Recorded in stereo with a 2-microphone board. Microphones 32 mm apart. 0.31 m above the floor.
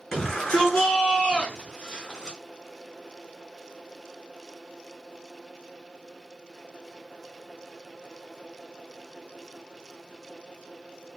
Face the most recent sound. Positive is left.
turn(degrees=20)  # may be behind; listen again after turning